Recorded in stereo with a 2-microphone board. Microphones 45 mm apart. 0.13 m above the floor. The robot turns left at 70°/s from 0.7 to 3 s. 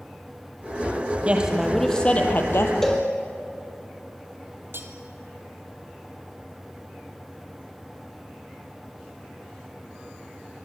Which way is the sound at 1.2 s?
150° right.